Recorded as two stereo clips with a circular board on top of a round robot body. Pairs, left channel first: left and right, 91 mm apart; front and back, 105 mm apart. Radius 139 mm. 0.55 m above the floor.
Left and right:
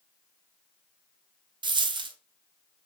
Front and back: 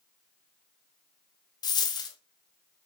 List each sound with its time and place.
1.6 s a dropped coin: 55° right, 0.5 m